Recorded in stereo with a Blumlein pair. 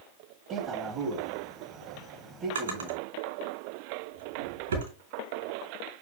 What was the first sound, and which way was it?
A man speaking, 25° right.